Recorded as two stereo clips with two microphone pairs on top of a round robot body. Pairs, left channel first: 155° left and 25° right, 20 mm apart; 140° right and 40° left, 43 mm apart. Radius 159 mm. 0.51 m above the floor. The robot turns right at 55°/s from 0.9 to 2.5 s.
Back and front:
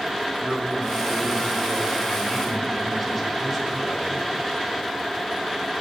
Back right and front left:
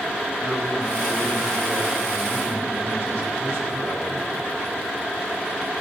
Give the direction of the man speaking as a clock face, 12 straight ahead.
1 o'clock.